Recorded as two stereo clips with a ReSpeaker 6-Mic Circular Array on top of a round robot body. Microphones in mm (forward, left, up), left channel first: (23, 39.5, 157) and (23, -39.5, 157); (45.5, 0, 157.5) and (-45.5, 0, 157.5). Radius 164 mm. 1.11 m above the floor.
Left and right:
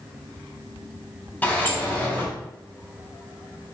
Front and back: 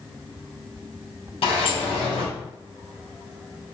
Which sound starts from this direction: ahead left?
A sliding door, at 1.4 s.